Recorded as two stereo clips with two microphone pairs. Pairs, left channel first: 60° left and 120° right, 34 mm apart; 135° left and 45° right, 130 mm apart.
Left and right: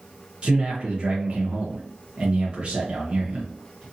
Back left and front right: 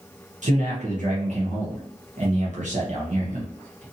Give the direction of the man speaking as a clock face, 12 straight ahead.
2 o'clock.